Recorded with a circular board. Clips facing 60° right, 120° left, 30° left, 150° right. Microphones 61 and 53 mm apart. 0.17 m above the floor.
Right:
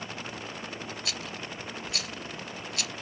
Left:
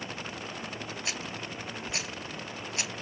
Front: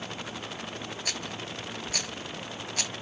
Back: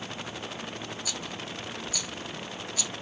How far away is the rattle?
About 0.6 m.